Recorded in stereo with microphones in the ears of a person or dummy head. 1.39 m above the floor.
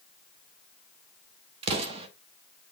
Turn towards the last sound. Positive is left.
turn(degrees=-30)  # may be behind; listen again after turning